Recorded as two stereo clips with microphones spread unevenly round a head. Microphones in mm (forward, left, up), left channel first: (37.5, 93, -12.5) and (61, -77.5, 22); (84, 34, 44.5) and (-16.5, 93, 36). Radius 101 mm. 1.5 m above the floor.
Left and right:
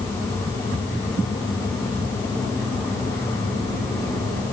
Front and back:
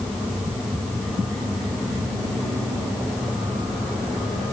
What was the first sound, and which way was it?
Only background noise.